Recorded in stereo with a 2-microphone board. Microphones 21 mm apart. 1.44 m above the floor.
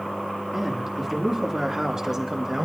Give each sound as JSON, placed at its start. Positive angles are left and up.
{"t": 0.5, "sound": "a man speaking", "side_deg": -20, "distance_m": 3.0}